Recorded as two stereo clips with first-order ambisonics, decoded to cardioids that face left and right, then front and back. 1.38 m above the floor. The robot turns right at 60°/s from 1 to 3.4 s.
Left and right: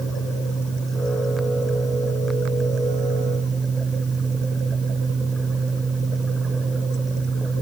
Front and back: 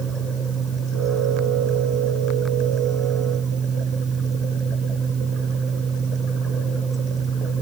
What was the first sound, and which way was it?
Only background noise.